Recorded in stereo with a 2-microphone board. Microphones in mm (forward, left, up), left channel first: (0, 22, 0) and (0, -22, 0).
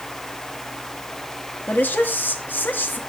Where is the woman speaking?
45° left (ahead or behind), 2 m.